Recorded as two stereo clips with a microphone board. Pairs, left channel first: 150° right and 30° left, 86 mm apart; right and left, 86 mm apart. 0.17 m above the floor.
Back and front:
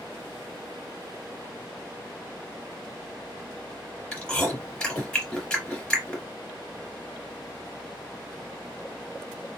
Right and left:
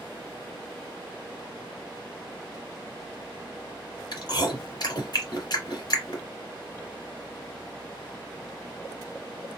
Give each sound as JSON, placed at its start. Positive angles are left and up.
{"t": 4.1, "sound": "chewing", "azimuth_deg": -75, "distance_m": 2.5}